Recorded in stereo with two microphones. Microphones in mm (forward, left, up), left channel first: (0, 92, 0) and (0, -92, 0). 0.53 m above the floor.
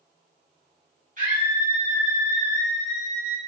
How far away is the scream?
About 1.1 m.